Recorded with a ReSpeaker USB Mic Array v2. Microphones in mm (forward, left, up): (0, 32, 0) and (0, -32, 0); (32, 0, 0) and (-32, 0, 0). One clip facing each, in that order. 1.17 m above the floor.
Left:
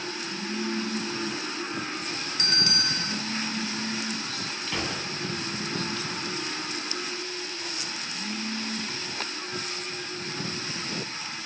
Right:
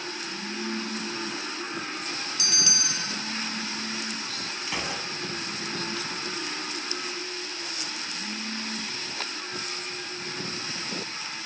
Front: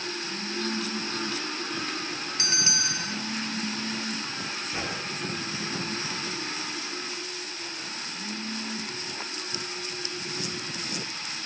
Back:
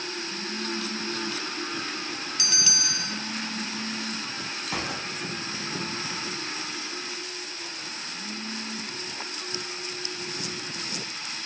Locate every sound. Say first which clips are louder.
2.4 s a bell: left 6 dB, front 3 dB; 55° left, 2.5 m
4.7 s a gunshot: left 1 dB, back 3 dB; 170° right, 8.5 m